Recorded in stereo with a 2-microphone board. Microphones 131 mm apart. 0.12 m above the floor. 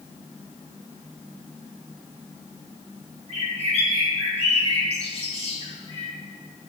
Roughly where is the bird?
Left.